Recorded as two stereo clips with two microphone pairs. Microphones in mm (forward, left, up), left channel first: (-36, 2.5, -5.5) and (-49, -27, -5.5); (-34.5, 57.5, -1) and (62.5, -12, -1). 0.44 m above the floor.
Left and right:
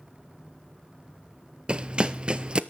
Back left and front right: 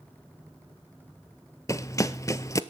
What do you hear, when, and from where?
1.7 s running footsteps: 165° right, 0.6 m